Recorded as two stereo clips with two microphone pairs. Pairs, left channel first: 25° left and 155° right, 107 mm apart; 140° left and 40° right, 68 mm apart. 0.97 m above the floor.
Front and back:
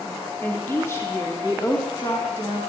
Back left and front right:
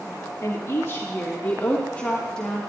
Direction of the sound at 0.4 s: 95° left.